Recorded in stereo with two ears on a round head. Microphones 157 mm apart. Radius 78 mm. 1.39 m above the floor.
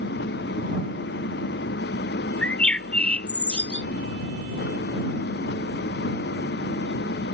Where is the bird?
10° left (ahead or behind).